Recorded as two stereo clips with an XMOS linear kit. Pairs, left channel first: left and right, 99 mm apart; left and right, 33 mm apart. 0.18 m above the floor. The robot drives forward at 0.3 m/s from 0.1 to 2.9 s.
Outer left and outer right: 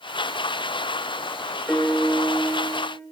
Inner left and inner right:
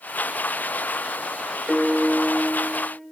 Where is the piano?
5° left (ahead or behind), 3 m.